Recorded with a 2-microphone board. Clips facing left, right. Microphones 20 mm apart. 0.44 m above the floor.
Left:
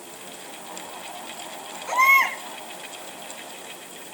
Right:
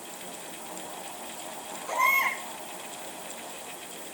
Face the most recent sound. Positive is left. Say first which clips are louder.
# left 7 dB
turn(degrees=80)